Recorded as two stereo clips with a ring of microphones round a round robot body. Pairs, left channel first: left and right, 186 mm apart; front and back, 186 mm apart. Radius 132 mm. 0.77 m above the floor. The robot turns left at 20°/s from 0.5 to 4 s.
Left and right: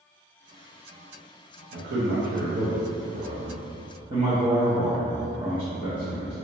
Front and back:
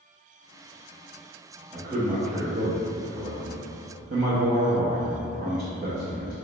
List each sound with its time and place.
1.7 s a man speaking: 105° right, 0.7 m; by 6.3 s 150° right, 0.7 m